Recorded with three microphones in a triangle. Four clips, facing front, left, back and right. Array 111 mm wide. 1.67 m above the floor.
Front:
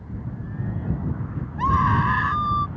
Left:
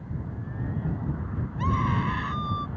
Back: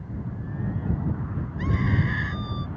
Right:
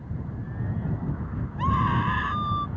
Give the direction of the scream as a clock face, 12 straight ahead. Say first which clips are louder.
Right 3 dB, front 8 dB; 12 o'clock.